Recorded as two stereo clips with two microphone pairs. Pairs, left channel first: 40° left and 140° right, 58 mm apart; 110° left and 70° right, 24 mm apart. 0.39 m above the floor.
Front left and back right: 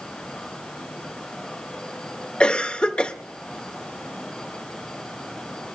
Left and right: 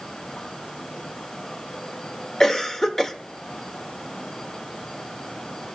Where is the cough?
70° left, 0.8 m.